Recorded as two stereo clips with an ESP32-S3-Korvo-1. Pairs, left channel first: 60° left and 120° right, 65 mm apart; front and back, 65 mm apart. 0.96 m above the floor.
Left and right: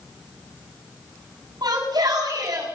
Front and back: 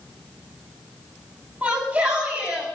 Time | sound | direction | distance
1.6 | a shout | 105° right | 8.5 m